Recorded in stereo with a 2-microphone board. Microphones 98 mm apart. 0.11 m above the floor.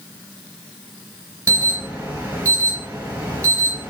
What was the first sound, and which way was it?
An alarm, 30° right (ahead or behind).